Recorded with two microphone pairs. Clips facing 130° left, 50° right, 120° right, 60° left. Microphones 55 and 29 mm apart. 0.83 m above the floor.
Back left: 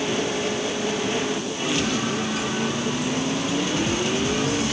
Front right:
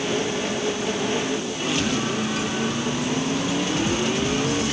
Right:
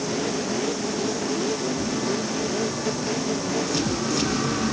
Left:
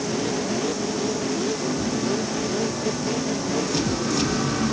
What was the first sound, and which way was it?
Only background noise.